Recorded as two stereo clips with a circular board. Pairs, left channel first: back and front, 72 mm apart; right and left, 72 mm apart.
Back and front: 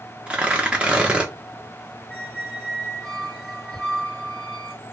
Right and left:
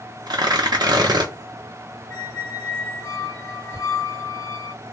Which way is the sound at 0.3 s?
75° left.